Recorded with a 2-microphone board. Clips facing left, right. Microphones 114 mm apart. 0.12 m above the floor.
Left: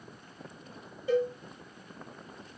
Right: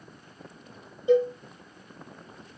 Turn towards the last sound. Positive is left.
turn(degrees=-15)  # may be behind; listen again after turning